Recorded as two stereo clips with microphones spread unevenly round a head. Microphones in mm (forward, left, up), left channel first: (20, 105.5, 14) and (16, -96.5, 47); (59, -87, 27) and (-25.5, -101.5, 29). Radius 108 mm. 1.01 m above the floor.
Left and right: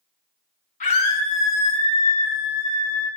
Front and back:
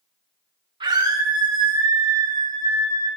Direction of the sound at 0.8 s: 140° left.